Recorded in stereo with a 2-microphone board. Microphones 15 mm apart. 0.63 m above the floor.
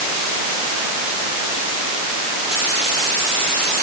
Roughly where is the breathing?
I don't hear breathing.